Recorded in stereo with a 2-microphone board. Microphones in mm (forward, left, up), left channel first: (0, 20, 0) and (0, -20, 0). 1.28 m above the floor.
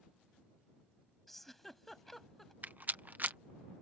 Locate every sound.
1.3 s a giggle: 5° left (ahead or behind)
2.6 s a rattle: 45° right (ahead or behind)